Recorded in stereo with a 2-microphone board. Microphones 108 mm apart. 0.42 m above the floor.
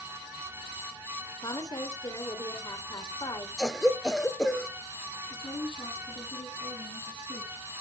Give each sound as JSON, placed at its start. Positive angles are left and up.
{"t": 1.4, "sound": "a woman speaking", "side_deg": 35, "distance_m": 1.7}
{"t": 3.6, "sound": "a cough", "side_deg": 5, "distance_m": 0.9}
{"t": 5.3, "sound": "a woman speaking", "side_deg": 45, "distance_m": 5.0}